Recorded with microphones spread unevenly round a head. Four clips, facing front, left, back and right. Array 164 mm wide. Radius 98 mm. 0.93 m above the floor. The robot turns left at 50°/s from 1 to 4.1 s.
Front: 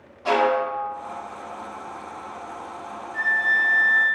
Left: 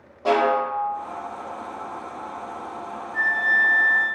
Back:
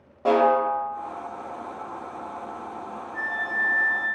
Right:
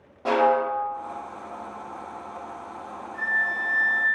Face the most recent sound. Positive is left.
turn(degrees=20)